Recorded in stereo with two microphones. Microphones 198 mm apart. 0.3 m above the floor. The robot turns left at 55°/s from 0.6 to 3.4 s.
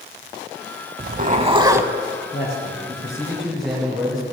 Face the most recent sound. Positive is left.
turn(degrees=0)